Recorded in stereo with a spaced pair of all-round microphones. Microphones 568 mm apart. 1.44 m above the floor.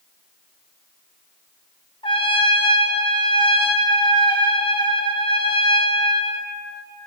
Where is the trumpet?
10° left (ahead or behind), 0.8 m.